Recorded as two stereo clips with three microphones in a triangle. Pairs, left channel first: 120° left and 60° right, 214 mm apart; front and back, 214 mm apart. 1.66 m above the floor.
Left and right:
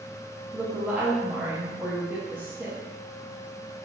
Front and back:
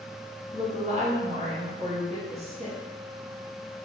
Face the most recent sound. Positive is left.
turn(degrees=-140)